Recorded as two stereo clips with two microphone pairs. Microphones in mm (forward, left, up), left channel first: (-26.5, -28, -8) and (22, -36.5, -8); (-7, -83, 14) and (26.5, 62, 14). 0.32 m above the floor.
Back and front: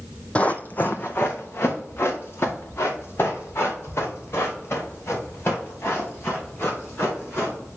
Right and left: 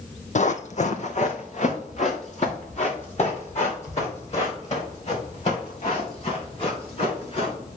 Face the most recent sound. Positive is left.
turn(degrees=-150)